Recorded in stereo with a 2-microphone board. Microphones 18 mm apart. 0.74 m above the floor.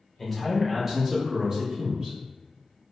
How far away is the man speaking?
About 1.1 m.